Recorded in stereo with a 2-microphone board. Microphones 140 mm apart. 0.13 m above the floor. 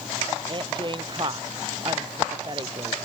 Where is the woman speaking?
35° right (ahead or behind).